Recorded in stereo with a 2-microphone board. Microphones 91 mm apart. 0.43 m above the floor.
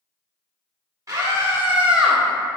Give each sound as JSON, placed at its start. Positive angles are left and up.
{"t": 1.1, "sound": "a scream", "side_deg": -35, "distance_m": 0.8}